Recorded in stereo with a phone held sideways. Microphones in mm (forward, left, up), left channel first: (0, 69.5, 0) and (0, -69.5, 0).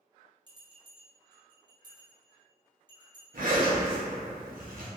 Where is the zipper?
65° right (ahead or behind), 0.7 m.